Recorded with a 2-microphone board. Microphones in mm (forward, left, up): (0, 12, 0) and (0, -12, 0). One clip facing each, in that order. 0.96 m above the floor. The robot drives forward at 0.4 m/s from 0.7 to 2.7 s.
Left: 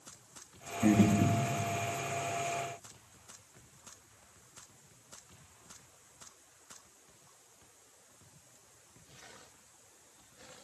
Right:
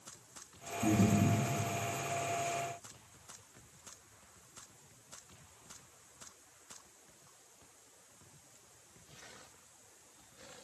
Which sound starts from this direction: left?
Breathing, at 0.8 s.